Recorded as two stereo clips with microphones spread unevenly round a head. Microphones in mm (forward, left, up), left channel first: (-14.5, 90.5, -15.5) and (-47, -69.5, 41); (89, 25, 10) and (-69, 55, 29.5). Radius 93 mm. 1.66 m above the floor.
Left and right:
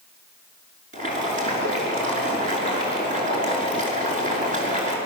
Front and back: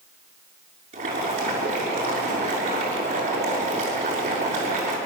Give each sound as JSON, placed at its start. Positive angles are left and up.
{"t": 0.9, "sound": "boiling", "azimuth_deg": -135, "distance_m": 6.0}